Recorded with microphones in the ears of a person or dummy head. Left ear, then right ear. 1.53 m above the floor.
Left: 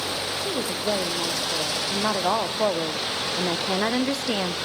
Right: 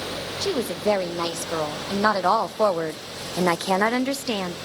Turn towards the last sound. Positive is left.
turn(degrees=0)  # may be behind; listen again after turning